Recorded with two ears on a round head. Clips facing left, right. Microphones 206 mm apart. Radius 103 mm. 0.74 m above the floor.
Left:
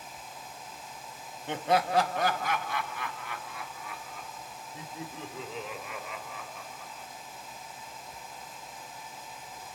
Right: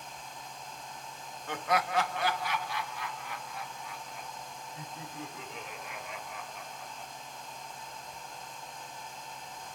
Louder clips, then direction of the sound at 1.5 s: Left 4 dB; 20° left (ahead or behind).